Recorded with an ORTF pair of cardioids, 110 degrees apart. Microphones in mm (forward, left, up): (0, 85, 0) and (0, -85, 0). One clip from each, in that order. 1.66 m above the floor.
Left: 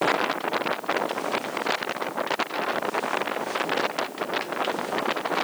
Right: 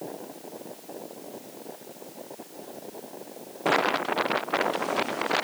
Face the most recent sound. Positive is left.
No sound to turn to.